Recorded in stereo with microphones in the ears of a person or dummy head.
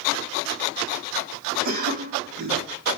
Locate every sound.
1.6 s a cough: 45° right (ahead or behind), 0.7 m